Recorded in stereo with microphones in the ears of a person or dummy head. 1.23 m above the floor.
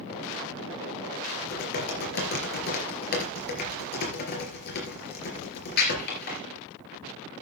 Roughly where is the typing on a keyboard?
Left.